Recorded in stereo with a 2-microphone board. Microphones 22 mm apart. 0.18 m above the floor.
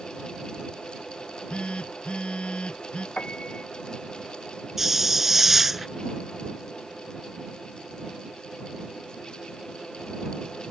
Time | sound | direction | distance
1.2 | a phone buzzing | 60° left (ahead or behind) | ?
3.2 | a piano | 75° left (ahead or behind) | ?
4.8 | a hiss | 15° right (ahead or behind) | ?